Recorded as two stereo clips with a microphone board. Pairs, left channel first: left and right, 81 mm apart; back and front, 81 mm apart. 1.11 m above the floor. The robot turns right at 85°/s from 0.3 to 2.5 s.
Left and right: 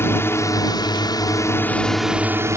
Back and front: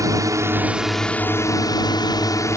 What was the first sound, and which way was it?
A drone, 35° left.